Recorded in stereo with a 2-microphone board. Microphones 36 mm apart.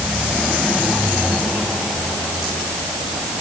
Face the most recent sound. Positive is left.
No sound to turn to.